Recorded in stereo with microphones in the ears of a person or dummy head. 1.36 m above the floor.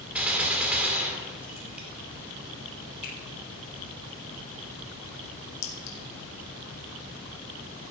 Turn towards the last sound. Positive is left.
turn(degrees=85)